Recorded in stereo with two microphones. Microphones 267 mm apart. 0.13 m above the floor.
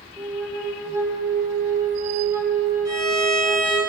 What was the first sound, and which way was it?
A flute, 10° right (ahead or behind).